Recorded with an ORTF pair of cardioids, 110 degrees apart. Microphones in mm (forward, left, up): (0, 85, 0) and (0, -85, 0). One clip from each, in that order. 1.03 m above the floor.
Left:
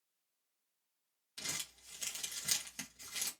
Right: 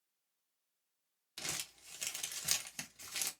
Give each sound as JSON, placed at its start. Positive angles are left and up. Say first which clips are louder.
{"t": 1.4, "sound": "crumpling", "louder": "even", "azimuth_deg": -20, "distance_m": 1.0}